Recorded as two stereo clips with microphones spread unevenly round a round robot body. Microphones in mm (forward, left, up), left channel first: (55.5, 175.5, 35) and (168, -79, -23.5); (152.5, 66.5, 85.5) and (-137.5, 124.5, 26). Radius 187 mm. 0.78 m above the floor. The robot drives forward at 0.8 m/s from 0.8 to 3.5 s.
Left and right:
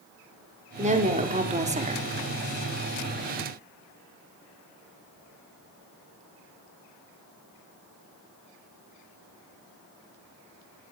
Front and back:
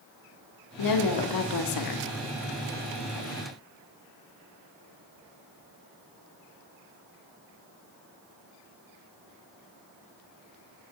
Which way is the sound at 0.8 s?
5° right.